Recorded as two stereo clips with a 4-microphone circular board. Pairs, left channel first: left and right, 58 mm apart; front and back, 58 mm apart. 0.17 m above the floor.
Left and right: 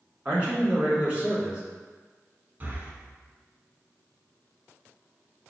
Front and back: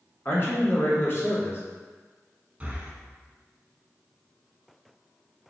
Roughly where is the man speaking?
Ahead right.